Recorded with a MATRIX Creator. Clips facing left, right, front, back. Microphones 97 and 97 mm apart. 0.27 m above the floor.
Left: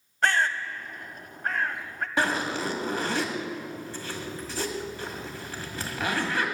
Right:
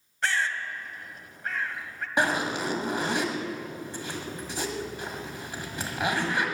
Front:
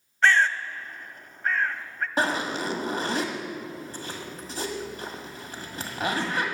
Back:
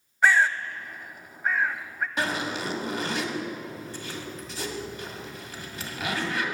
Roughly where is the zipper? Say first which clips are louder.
Right 1 dB, front 4 dB; ahead right.